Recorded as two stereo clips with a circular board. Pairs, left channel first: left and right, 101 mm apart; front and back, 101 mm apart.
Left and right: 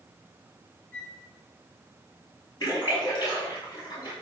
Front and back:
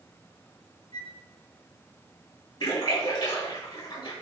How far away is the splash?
About 6 m.